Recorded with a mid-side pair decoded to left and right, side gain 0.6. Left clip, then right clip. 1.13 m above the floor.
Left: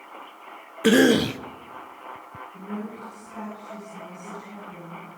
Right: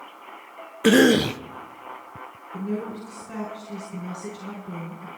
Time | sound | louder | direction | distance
0.8 | a cough | right 1 dB | 5° right | 0.7 m
2.5 | a woman speaking | right 7 dB | 65° right | 5.5 m